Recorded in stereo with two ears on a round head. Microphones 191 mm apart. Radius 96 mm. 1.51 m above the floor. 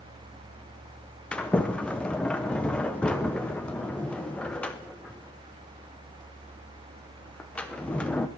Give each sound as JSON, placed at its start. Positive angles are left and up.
{"t": 1.3, "sound": "a sliding door", "side_deg": 5, "distance_m": 0.7}